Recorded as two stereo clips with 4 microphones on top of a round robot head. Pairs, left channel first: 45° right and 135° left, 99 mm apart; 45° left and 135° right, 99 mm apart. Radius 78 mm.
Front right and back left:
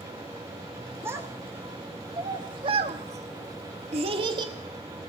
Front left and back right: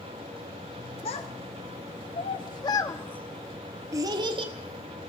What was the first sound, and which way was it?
A child speaking, 70° left.